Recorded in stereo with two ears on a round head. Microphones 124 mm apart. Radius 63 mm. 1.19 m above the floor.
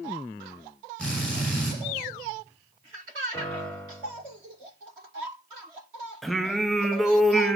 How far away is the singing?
About 1.0 m.